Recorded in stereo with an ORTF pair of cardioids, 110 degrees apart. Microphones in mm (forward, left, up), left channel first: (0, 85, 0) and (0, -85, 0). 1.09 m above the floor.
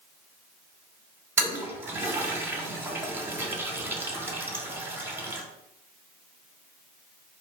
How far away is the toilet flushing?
About 0.8 m.